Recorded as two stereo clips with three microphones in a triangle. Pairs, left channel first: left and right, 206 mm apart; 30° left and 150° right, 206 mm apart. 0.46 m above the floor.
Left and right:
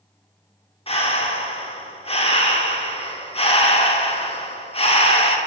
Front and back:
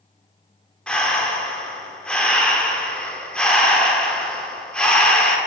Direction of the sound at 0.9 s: 110° left.